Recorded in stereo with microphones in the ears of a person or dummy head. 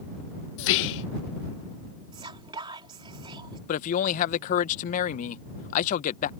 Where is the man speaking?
40° left (ahead or behind).